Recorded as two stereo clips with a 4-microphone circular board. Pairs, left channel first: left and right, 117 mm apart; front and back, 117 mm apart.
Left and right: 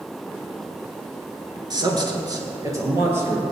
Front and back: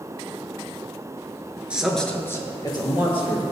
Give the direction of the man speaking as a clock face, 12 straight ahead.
4 o'clock.